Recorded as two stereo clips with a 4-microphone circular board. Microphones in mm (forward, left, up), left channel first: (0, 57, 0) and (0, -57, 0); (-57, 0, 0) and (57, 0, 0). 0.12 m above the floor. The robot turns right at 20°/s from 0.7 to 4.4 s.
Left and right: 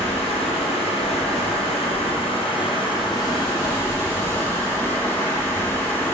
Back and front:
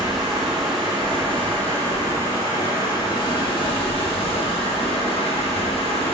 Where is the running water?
85° left, 2.5 m; by 6.1 s 155° left, 2.5 m.